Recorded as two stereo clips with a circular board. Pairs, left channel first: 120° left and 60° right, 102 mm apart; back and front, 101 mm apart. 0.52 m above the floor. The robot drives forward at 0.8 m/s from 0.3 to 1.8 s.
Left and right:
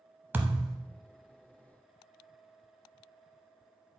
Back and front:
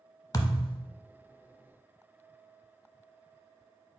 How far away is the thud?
About 0.6 m.